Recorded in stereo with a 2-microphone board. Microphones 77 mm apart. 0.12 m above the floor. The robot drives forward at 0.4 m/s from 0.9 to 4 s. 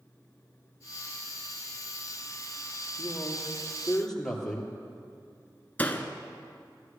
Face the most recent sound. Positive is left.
turn(degrees=20)  # may be behind; listen again after turning